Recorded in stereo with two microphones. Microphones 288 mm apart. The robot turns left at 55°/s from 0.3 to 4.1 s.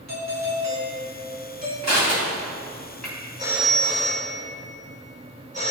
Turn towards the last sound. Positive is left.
turn(degrees=155)